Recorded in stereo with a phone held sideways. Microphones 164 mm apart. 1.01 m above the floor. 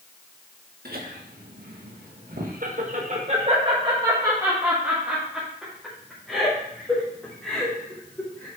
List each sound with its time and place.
0.8 s laughter: 65° right (ahead or behind), 1.8 m; by 8.5 s 15° left (ahead or behind), 3.5 m